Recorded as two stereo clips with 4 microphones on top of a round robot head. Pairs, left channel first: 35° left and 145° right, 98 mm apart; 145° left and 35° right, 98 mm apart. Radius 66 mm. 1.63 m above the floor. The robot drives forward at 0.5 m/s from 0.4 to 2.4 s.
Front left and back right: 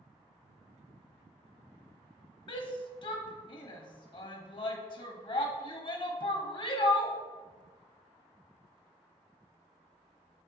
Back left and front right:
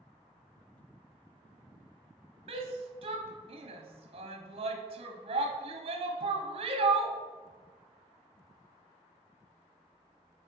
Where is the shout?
5° right, 1.1 m.